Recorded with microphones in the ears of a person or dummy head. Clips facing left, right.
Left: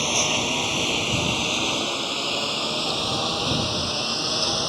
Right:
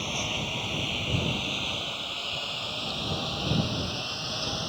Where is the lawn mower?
75° left (ahead or behind).